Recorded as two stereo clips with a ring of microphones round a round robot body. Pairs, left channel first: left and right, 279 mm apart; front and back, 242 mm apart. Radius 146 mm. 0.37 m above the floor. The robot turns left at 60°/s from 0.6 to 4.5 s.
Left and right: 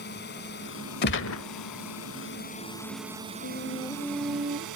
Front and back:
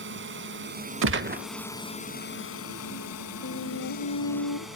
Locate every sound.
0.0 s a drone: 145° left; by 4.8 s 90° right
1.0 s a gunshot: 145° left; by 1.4 s 120° left
3.4 s a flute: 40° left; by 4.7 s 25° right